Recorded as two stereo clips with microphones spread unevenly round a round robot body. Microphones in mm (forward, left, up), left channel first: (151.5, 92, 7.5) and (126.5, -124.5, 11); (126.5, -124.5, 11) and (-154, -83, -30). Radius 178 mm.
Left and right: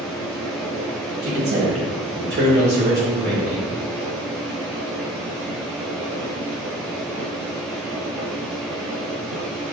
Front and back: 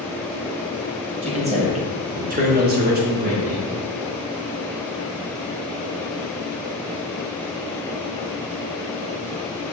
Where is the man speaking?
125° right, 2.0 m; by 3.6 s 130° left, 0.9 m.